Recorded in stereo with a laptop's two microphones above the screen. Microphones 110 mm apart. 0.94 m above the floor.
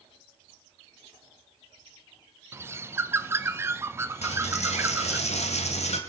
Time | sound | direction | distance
2.5 | a bird | 20° right (ahead or behind) | 0.7 m
4.2 | a dropped coin | 80° left | 1.9 m